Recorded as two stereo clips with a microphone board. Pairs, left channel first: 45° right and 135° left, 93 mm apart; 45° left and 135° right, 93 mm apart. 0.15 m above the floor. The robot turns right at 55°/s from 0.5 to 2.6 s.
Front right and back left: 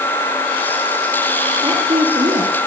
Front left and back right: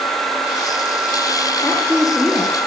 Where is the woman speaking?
120° left, 3 m; by 2.6 s 170° left, 3 m.